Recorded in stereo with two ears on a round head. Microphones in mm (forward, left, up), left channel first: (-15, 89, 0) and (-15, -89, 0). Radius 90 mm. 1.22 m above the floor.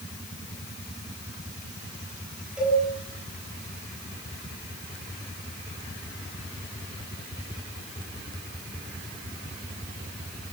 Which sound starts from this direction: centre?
A cowbell, at 2.6 s.